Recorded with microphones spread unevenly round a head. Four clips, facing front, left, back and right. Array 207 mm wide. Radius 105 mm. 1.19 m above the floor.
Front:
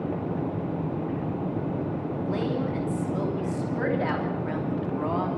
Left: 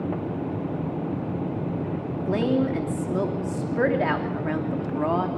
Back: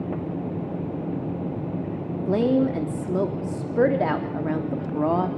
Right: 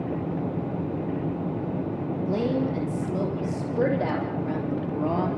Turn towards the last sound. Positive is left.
turn(degrees=175)